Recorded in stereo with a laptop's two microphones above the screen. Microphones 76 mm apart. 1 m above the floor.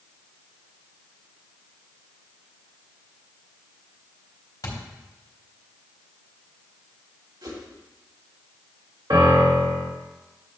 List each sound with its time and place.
4.6 s a thud: 60° left (ahead or behind), 2.5 m
7.4 s a whoosh: 80° right, 2.5 m
9.1 s a piano: 75° right (ahead or behind), 1.9 m